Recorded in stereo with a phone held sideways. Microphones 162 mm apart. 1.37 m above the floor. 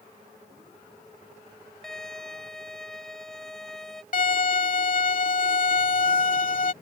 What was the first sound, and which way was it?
A violin, 5° left (ahead or behind).